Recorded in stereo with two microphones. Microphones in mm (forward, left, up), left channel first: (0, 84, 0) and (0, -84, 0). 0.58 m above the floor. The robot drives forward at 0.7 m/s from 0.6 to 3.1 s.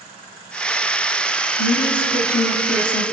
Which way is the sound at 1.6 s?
70° left (ahead or behind).